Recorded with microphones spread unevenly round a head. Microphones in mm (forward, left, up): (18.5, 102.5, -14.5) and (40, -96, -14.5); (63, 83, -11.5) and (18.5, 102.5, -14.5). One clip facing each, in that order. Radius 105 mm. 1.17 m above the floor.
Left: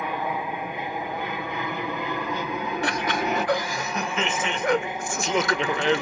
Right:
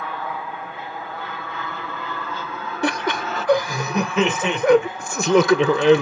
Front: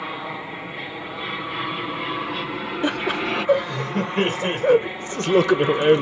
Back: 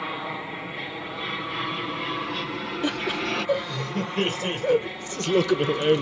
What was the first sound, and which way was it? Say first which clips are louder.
An aircraft: left 2 dB, front 1 dB; 60° left.